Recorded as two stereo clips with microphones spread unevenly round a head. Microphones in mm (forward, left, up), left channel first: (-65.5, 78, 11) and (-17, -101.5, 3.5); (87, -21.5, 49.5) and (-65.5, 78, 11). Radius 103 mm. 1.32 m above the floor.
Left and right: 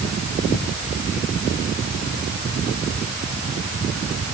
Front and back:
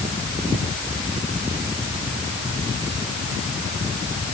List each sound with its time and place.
Only background noise.